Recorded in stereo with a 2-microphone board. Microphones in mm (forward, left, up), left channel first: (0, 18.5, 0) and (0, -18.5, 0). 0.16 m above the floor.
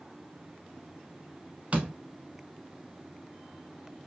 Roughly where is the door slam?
Right.